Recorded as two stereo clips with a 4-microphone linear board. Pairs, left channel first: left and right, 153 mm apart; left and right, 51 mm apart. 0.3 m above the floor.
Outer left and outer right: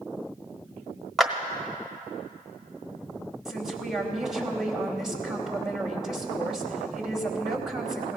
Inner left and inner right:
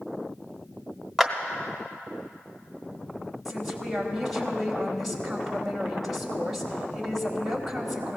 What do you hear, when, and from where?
1.2 s a clap: centre (ahead or behind), 1.0 m
3.5 s a woman speaking: 5° right (ahead or behind), 1.8 m